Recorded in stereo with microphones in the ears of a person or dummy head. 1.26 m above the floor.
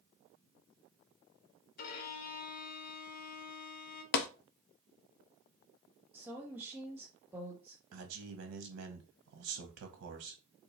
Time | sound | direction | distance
1.8 | a violin | 50° left (ahead or behind) | 0.8 m
4.1 | tapping | 60° left (ahead or behind) | 0.5 m
6.1 | a woman speaking | 10° right (ahead or behind) | 0.8 m
7.9 | a man speaking | 80° right | 0.9 m